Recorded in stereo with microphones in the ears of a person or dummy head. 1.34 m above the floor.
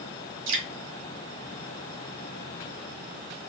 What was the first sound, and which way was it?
Dripping, 70° right (ahead or behind).